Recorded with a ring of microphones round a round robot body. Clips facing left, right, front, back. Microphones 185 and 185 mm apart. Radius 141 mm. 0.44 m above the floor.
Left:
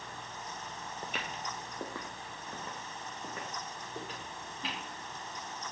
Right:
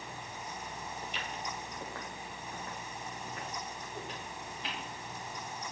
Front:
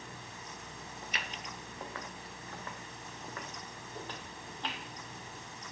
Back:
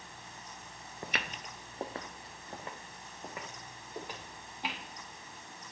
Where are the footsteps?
160° left, 0.6 m; by 4.8 s 100° left, 4 m.